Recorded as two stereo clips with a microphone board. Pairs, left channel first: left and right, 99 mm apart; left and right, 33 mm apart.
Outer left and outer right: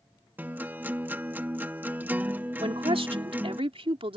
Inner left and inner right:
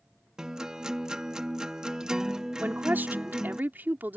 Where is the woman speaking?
70° right (ahead or behind).